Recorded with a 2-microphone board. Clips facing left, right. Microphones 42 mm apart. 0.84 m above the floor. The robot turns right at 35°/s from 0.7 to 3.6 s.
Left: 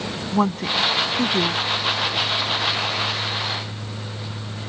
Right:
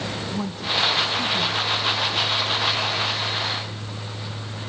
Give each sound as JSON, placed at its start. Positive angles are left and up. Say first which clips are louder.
{"t": 0.3, "sound": "a woman speaking", "louder": "left 6 dB", "side_deg": 50}